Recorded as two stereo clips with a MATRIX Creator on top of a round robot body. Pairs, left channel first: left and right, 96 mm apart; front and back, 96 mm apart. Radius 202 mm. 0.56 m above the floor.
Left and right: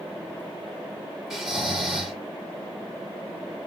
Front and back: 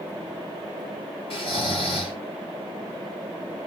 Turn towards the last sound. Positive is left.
turn(degrees=-5)